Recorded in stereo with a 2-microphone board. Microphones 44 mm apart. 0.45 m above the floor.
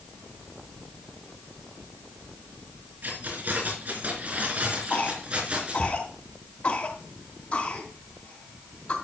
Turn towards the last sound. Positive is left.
turn(degrees=45)  # may be behind; listen again after turning